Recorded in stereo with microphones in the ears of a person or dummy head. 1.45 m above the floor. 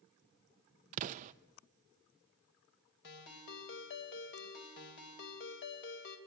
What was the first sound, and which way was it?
An explosion, 45° right (ahead or behind).